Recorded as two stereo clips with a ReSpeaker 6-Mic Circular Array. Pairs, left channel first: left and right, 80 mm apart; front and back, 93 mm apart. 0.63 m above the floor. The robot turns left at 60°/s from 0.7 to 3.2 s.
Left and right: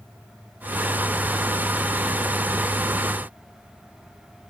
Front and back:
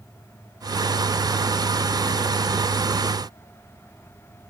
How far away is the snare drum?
I don't hear a snare drum.